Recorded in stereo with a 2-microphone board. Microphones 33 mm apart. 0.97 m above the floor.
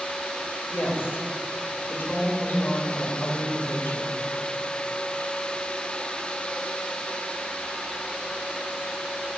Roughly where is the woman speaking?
Left.